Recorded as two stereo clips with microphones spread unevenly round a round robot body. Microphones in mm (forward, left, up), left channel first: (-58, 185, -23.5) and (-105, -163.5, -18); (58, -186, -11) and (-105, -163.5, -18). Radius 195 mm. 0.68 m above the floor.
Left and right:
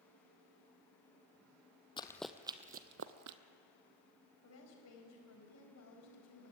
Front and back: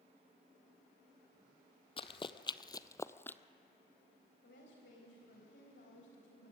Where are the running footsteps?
10° left, 0.8 m; by 3.4 s 85° right, 0.9 m.